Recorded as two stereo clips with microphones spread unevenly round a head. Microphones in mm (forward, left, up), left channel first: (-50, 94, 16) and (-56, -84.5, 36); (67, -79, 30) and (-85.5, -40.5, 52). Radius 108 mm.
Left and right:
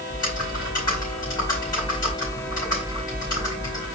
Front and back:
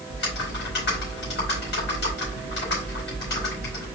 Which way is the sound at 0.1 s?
15° left.